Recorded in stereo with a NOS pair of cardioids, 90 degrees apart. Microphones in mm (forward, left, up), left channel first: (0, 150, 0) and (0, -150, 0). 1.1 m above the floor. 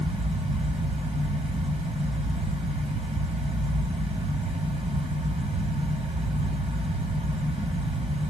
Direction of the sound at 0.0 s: 20° right.